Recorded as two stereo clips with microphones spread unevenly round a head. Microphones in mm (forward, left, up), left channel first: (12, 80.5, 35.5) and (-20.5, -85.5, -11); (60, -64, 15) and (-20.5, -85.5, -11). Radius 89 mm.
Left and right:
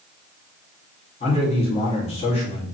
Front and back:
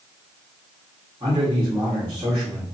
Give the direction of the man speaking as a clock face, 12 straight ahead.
7 o'clock.